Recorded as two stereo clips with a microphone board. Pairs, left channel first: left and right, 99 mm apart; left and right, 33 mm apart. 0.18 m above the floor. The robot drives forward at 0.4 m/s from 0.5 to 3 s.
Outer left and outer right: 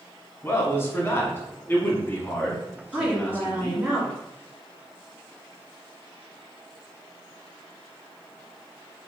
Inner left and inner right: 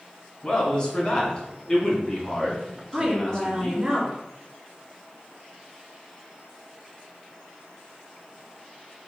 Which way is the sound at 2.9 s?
10° right (ahead or behind).